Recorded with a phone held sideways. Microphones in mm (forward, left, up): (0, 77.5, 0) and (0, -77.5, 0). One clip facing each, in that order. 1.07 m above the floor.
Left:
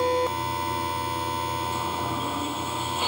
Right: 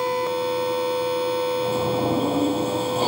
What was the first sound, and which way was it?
A sliding door, 40° right (ahead or behind).